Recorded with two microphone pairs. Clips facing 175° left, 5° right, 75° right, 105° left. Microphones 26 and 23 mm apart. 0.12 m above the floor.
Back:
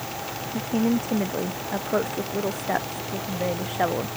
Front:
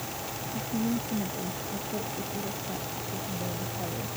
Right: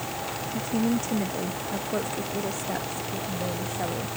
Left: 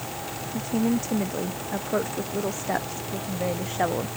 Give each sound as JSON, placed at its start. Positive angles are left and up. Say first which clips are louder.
{"t": 0.5, "sound": "a woman speaking", "louder": "back 7 dB, left 2 dB", "azimuth_deg": -170}